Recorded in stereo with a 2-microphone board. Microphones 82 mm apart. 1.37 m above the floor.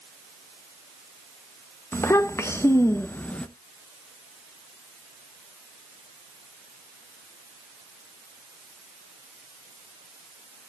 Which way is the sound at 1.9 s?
35° left (ahead or behind).